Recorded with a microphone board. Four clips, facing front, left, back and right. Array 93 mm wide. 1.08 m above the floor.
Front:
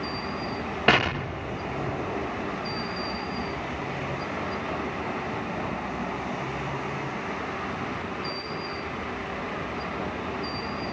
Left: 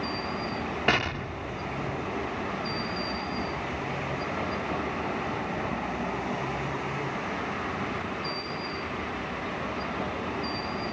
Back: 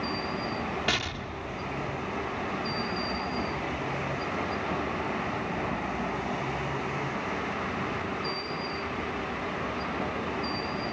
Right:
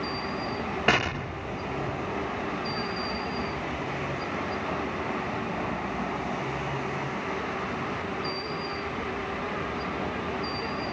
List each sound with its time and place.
0.9 s an explosion: 10° right